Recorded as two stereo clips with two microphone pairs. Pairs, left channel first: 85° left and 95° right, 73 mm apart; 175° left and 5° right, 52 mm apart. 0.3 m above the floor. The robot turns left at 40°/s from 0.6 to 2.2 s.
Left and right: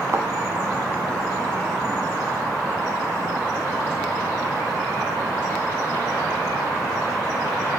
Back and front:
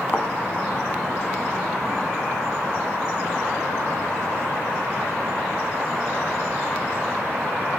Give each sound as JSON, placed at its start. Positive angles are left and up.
{"t": 0.1, "sound": "a thud", "azimuth_deg": -140, "distance_m": 0.7}